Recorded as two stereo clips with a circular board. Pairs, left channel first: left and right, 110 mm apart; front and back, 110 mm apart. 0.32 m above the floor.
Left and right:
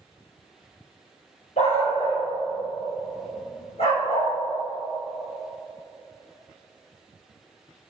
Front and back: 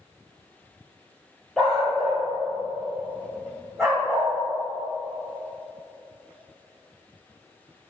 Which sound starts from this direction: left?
A dog barking, at 1.6 s.